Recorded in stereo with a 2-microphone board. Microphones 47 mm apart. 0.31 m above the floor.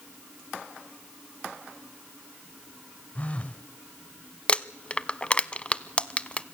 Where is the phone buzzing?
30° left (ahead or behind), 1.1 m.